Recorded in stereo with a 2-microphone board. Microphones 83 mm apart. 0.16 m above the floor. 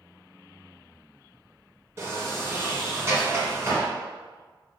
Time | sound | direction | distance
2.0 | a sliding door | 35° right (ahead or behind) | 1.8 m